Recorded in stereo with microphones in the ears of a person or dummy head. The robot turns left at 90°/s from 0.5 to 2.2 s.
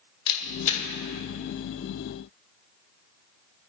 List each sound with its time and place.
0.3 s a camera shutter: 60° left (ahead or behind), 2 m; by 0.8 s 25° left (ahead or behind), 2 m